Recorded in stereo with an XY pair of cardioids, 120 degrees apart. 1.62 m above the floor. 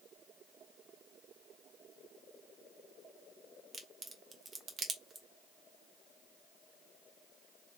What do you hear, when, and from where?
3.7 s a crack: 25° right, 1.1 m